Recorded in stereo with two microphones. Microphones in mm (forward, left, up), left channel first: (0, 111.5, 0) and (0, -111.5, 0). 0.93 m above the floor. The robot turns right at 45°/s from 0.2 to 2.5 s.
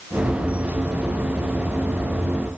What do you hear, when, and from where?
Only background noise.